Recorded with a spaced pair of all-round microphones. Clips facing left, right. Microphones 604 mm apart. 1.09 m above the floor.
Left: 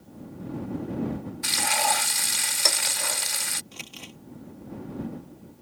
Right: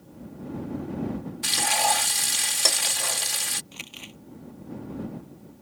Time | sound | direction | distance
1.4 | frying | 55° right (ahead or behind) | ?
3.7 | crumpling | 65° left (ahead or behind) | ?